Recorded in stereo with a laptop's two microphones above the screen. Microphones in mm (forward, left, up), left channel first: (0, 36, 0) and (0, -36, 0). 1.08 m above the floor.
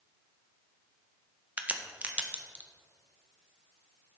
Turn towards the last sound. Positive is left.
turn(degrees=-20)  # may be behind; listen again after turning